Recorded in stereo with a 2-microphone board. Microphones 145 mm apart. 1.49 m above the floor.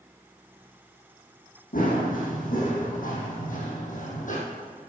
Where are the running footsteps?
70° left (ahead or behind), 4 m; by 4.4 s 65° left (ahead or behind), 3.5 m.